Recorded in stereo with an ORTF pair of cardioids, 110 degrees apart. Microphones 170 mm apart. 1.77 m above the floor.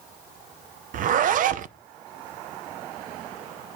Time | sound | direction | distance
0.9 | a zipper | 55° right | 0.7 m